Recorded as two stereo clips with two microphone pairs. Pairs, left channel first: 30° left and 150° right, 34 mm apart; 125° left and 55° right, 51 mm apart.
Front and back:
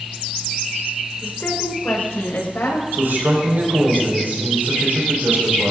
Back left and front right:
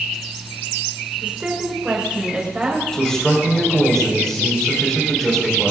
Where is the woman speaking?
10° left, 5 m; by 2.8 s 20° left, 7 m.